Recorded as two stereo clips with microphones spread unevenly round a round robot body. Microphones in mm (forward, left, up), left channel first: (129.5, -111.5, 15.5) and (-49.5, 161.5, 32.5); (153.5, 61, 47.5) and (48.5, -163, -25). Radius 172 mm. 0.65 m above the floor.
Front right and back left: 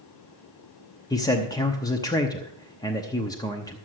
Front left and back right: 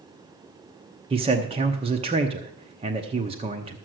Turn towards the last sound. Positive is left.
turn(degrees=-125)